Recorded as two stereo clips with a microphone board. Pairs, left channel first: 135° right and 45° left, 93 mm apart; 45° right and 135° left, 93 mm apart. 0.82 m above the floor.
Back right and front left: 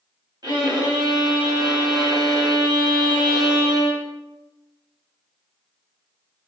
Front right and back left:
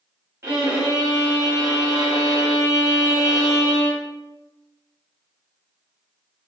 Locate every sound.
0.4 s a violin: 80° left, 1.3 m